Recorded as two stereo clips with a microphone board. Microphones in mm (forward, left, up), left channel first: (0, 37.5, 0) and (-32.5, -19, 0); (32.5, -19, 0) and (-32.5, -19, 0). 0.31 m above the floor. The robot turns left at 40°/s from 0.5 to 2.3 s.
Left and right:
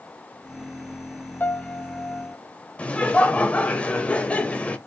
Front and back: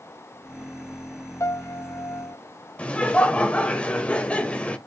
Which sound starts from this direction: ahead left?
Laughter, at 2.8 s.